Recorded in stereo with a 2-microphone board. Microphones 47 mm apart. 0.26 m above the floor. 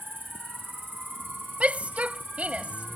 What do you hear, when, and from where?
0.0 s an insect: 50° right (ahead or behind)
1.6 s a shout: 30° right (ahead or behind)